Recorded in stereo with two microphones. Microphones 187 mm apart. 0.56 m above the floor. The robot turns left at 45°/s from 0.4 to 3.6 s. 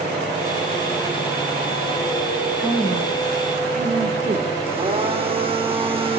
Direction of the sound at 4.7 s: 30° right (ahead or behind).